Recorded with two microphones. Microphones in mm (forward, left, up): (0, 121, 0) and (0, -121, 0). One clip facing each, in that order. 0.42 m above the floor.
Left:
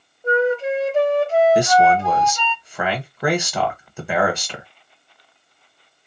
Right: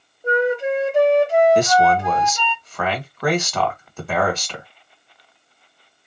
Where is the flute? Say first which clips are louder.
Left 1 dB; 15° right (ahead or behind), 0.7 m.